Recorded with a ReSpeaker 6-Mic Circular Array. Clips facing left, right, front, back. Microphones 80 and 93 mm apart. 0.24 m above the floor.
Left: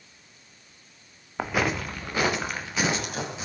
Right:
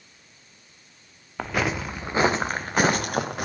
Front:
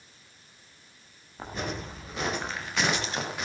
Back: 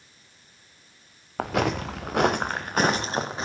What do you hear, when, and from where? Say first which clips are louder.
1.4 s footsteps: even, back 10 dB; 170° left, 1.9 m; by 3.5 s 120° right, 3 m